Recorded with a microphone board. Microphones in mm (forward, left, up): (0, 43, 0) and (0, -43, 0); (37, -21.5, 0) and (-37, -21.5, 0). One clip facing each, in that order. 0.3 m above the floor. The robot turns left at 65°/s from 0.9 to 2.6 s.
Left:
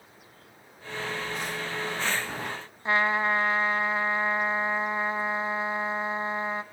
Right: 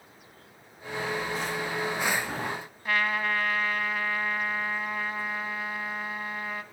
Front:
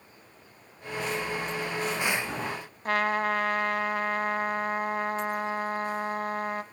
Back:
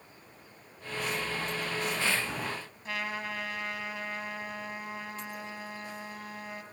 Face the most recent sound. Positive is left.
turn(degrees=25)